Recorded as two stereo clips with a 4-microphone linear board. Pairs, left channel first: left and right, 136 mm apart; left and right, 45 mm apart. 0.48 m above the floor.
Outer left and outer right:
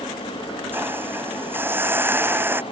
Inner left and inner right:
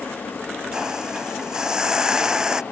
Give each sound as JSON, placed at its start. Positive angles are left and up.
{"t": 0.7, "sound": "a hiss", "side_deg": -15}